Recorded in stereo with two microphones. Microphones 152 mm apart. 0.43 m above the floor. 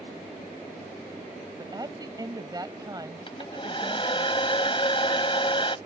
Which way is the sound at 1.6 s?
25° right (ahead or behind).